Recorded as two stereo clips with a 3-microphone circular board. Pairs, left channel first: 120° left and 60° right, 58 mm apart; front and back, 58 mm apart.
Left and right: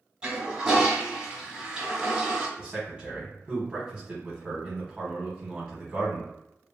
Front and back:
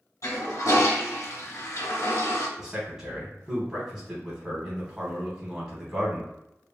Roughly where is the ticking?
I don't hear ticking.